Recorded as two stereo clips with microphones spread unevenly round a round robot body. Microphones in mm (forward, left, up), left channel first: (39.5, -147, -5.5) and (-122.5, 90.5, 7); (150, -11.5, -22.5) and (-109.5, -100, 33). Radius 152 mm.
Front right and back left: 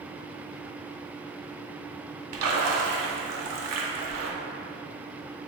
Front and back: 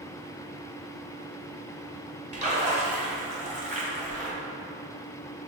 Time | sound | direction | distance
2.3 | a splash | 130° left | 0.7 m